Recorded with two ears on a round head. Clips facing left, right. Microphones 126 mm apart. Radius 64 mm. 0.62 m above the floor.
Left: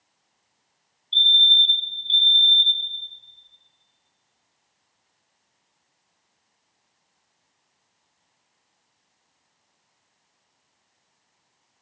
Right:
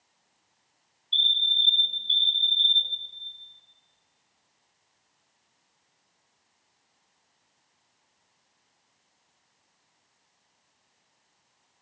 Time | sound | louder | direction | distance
1.1 | a fire alarm | left 7 dB | centre (ahead or behind) | 4 m